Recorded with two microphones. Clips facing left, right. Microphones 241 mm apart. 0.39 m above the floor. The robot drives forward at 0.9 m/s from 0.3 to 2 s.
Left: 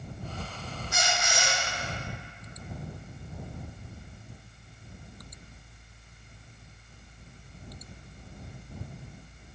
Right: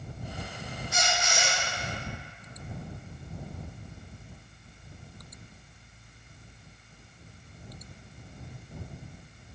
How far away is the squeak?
About 1.2 m.